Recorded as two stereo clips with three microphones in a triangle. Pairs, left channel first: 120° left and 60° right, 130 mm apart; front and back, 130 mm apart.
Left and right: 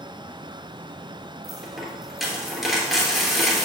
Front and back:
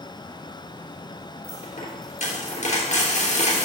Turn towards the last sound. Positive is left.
turn(degrees=25)